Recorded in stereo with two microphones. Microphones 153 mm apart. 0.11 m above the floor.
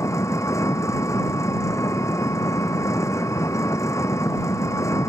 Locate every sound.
0.0 s an engine running: 20° left (ahead or behind)